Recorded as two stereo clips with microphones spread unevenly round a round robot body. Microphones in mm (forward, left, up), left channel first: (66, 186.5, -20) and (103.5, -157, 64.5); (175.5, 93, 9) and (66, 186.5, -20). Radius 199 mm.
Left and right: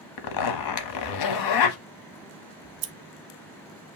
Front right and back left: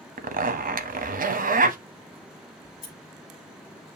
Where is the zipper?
125° left, 0.7 m.